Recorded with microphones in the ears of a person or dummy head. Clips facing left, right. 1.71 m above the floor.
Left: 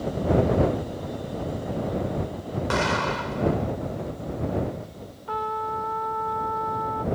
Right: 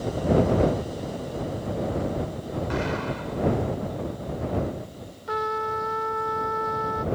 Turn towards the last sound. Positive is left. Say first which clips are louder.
# right 2 dB
turn(degrees=-30)  # may be behind; listen again after turning